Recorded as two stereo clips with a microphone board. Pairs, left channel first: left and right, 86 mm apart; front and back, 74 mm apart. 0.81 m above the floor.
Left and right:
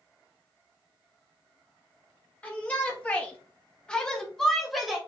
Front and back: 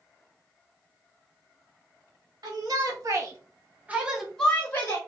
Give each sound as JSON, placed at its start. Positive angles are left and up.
{"t": 2.4, "sound": "a shout", "azimuth_deg": 165, "distance_m": 1.3}